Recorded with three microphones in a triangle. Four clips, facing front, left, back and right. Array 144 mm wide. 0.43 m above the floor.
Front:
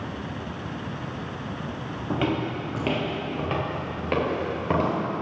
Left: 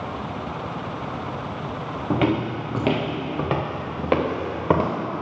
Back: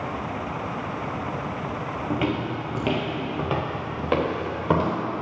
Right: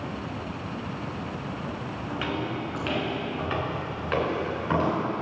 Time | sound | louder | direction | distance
2.1 | footsteps | left 9 dB, front 1 dB | 85° left | 1.2 m